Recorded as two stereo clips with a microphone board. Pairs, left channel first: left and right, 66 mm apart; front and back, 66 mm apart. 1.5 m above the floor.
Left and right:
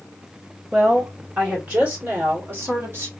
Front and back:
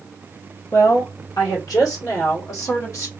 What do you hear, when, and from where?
0.7 s a woman speaking: 15° right, 2.5 m; by 3.1 s 40° right, 1.7 m